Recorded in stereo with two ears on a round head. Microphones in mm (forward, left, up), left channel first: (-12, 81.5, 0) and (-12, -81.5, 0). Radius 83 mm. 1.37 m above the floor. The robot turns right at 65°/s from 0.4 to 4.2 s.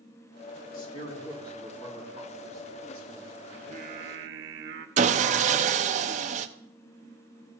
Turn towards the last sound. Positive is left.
turn(degrees=-40)  # may be behind; listen again after turning